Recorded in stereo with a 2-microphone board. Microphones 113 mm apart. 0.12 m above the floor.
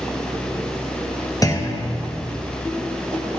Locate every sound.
1.4 s a clunk: 30° left (ahead or behind), 1.8 m